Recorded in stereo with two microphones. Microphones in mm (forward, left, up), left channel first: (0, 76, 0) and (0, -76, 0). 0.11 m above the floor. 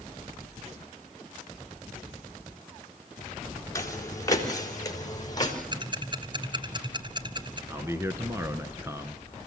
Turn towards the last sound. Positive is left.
turn(degrees=-20)  # may be behind; listen again after turning